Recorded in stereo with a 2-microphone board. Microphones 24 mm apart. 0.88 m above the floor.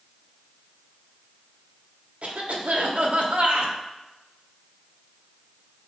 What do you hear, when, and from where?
2.2 s a cough: 65° right (ahead or behind), 1.4 m